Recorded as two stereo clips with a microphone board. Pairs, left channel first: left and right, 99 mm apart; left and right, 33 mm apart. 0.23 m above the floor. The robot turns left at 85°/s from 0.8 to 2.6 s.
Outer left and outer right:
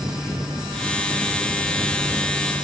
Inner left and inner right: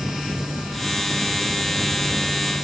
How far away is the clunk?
No clunk in this recording.